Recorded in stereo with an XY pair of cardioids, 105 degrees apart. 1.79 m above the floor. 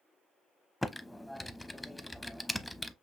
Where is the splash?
I don't hear a splash.